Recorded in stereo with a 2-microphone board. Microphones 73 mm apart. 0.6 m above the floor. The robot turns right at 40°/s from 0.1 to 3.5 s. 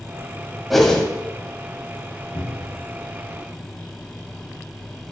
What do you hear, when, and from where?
0.7 s a whoosh: centre (ahead or behind), 1.4 m; by 1.1 s 15° left (ahead or behind), 1.4 m
2.4 s a cupboard door: 75° left (ahead or behind), 2.5 m; by 2.9 s 55° left (ahead or behind), 2.5 m